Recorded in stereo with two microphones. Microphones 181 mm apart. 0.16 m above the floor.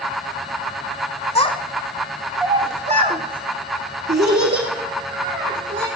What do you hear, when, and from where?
1.4 s a child speaking: 35° left (ahead or behind), 0.8 m; by 5.9 s 75° right (ahead or behind), 2.5 m